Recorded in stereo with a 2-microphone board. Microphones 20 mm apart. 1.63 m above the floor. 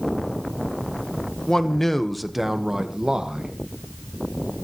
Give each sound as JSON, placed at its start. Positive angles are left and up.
{"t": 1.5, "sound": "a man speaking", "side_deg": 35, "distance_m": 1.6}